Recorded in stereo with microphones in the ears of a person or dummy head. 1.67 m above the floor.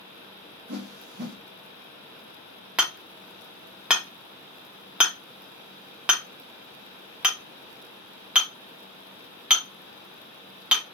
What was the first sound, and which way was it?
A whoosh, 55° right (ahead or behind).